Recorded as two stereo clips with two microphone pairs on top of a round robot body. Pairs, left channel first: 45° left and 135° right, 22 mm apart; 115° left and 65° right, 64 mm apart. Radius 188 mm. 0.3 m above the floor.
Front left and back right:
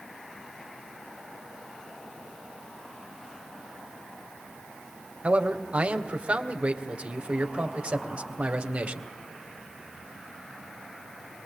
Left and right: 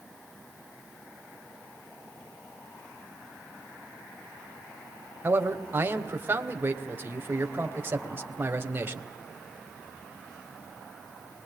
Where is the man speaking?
120° right, 3 m.